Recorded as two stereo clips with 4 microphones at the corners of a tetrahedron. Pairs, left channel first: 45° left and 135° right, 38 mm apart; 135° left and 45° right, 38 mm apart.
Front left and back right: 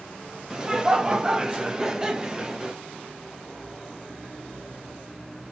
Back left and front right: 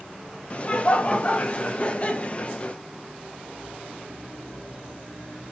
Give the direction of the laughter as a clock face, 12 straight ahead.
6 o'clock.